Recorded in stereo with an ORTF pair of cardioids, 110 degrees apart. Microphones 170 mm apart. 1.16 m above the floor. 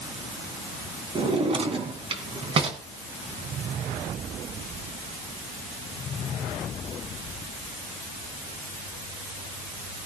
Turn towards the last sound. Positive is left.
turn(degrees=-35)